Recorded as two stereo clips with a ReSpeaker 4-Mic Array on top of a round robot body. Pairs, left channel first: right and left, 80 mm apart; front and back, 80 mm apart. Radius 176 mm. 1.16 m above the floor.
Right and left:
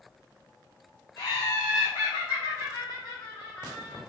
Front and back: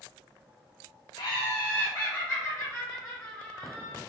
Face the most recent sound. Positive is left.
turn(degrees=-75)